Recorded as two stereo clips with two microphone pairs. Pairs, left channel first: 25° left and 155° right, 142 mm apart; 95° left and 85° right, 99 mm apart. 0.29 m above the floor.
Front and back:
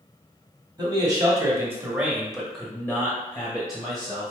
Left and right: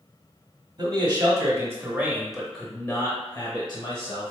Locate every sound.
0.8 s a man speaking: 105° right, 1.3 m; by 4.3 s 75° left, 1.4 m